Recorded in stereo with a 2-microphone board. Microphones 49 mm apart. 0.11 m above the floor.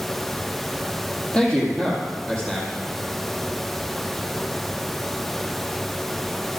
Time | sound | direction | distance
1.3 | a man speaking | 10° left (ahead or behind) | 4.5 m